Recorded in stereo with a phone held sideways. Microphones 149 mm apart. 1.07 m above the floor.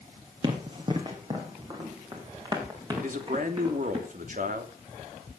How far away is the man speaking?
About 3 m.